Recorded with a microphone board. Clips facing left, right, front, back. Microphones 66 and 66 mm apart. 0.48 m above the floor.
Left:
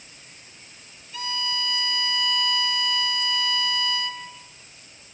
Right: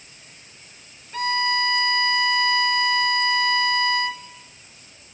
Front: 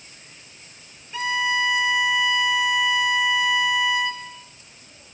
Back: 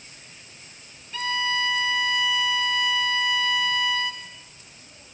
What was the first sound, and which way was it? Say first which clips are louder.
A violin: right 8 dB, front 3 dB; 70° right.